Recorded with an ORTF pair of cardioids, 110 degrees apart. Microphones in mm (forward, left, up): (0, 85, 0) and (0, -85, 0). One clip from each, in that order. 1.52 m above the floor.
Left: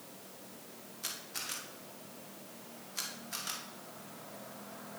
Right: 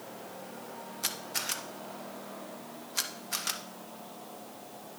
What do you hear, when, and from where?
1.0 s a camera shutter: 40° right, 1.3 m